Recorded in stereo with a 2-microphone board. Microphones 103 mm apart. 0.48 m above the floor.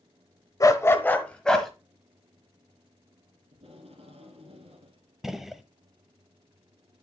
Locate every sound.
0.6 s a dog barking: 35° left (ahead or behind), 0.9 m; by 1.7 s 5° left (ahead or behind), 1.3 m
3.5 s tape being pulled: 85° right, 1.9 m
5.2 s a gunshot: 5° right (ahead or behind), 0.6 m